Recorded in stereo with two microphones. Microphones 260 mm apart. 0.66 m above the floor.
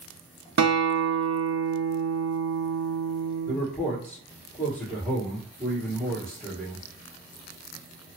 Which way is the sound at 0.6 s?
80° right.